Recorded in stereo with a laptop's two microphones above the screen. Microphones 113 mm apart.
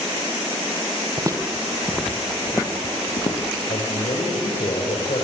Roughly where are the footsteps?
Right.